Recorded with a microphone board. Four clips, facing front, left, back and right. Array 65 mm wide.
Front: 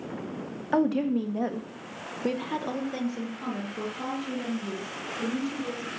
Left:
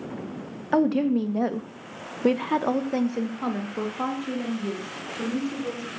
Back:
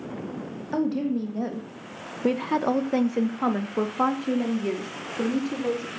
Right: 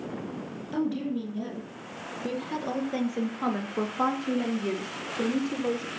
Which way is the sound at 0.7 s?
65° left.